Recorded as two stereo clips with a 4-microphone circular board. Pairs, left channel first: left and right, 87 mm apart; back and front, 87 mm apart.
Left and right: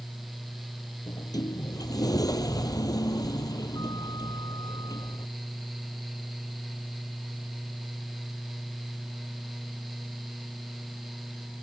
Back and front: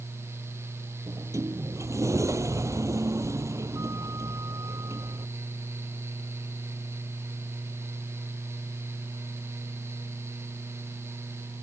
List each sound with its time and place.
1.1 s a sliding door: 50° left